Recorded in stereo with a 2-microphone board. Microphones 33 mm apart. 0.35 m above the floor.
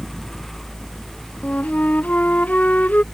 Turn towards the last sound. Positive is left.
turn(degrees=50)  # may be behind; listen again after turning